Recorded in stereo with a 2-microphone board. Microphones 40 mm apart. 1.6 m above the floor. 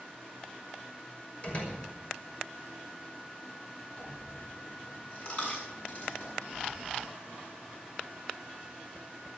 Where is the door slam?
35° left (ahead or behind), 6 m.